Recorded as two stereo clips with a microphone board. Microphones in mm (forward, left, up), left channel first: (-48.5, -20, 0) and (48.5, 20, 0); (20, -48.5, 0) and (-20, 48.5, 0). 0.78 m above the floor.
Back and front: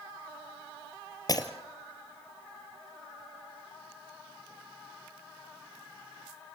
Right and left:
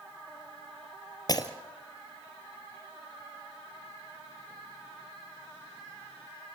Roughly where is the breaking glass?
Right.